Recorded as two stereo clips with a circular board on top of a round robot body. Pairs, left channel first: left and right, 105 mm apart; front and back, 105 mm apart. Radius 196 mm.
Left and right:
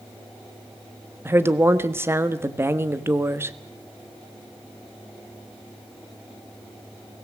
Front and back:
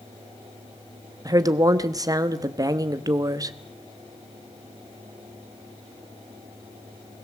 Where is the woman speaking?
145° right, 1.5 m.